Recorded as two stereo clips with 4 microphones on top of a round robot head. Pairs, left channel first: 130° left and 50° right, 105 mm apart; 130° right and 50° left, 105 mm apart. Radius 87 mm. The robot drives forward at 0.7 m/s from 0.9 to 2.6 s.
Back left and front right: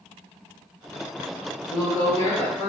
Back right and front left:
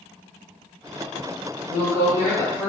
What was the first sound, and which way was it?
A woman speaking, 170° right.